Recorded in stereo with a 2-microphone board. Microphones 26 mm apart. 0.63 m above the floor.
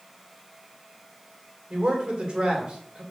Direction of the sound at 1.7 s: 40° right (ahead or behind).